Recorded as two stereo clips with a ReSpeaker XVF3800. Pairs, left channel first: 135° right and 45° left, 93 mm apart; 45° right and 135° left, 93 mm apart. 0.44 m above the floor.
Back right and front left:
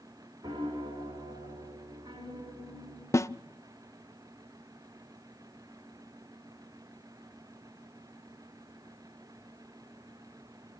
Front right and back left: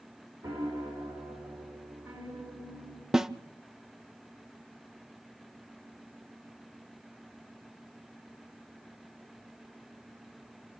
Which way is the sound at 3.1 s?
145° right.